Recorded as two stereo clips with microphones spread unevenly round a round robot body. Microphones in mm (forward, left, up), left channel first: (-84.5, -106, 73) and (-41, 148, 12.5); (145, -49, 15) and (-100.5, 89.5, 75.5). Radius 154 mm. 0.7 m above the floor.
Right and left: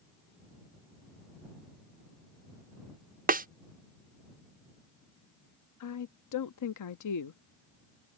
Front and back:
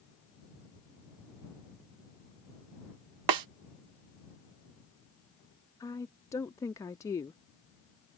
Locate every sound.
3.3 s a snare drum: 145° left
5.8 s a woman speaking: 100° right